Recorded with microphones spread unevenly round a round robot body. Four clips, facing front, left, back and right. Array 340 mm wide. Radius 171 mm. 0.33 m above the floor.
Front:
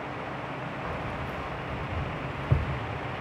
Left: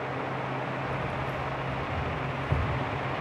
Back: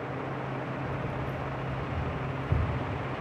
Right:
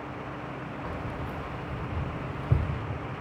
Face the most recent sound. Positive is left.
turn(degrees=-30)